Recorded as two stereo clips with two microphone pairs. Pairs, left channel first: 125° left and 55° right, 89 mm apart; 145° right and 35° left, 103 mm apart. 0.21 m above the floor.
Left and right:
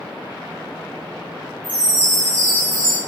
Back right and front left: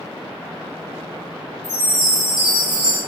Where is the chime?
110° left, 1.2 m.